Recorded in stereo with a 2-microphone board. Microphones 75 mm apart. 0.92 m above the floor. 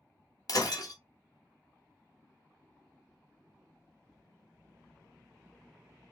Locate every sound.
0.5 s breaking glass: 55° left (ahead or behind), 1.1 m